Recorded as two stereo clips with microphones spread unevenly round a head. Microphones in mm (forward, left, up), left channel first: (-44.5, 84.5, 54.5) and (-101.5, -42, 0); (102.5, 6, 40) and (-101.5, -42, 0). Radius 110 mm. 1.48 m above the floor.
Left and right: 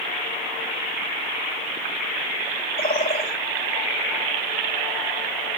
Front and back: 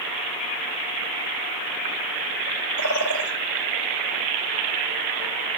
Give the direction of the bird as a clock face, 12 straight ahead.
11 o'clock.